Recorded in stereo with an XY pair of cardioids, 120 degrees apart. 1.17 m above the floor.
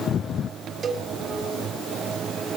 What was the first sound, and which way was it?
A cowbell, 35° right.